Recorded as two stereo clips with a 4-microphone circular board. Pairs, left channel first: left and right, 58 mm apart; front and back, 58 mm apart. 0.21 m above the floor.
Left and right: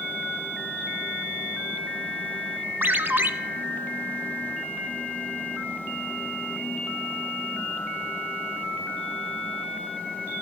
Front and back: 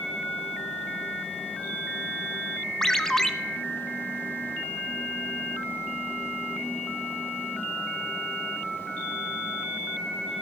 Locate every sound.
2.8 s a ringtone: 70° right, 0.5 m